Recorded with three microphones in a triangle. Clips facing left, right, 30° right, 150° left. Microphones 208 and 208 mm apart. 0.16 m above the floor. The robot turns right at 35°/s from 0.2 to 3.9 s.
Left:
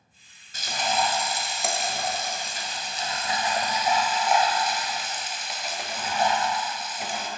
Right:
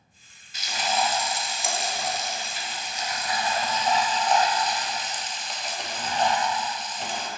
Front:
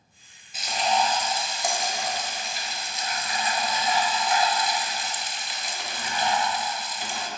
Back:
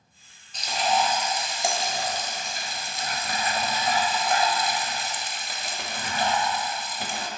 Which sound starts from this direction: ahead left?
Frying, at 0.5 s.